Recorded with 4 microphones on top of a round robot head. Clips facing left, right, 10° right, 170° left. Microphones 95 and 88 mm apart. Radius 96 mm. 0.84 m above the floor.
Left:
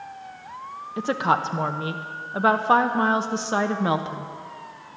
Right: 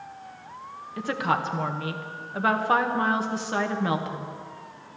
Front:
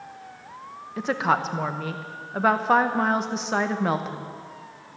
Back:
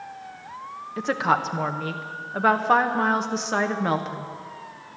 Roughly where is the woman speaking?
Left.